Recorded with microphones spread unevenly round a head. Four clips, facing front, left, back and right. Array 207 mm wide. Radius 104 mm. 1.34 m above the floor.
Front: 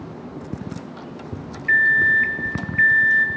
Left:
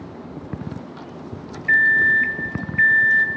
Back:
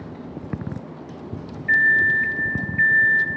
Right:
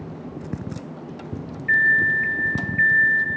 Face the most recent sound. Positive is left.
turn(degrees=70)